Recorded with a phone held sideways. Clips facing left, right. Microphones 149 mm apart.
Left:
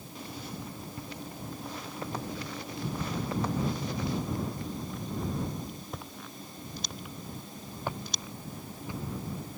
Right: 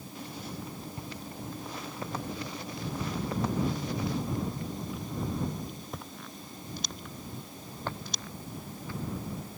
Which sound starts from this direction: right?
Footsteps, at 1.0 s.